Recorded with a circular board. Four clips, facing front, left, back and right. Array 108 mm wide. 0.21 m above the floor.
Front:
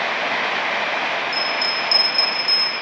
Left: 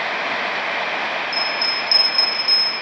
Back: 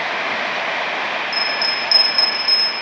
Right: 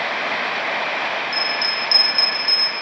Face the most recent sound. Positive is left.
turn(degrees=-130)